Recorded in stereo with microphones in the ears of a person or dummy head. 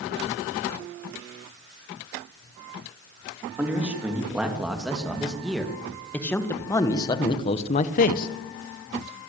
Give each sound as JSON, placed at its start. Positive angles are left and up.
{"t": 3.6, "sound": "a man speaking", "side_deg": -5, "distance_m": 3.0}